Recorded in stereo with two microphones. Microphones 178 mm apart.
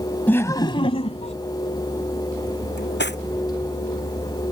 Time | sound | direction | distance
0.3 | laughter | 10° left (ahead or behind) | ?
2.8 | cutlery clinking | 75° left (ahead or behind) | ?